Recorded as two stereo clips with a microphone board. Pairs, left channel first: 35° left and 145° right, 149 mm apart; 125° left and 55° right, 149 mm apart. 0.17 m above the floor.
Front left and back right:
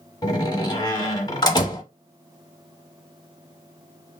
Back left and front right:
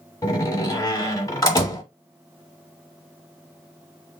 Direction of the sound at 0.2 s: 75° left.